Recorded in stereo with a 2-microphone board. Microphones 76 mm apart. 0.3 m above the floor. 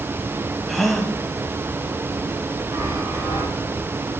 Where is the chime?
55° right (ahead or behind), 2 m.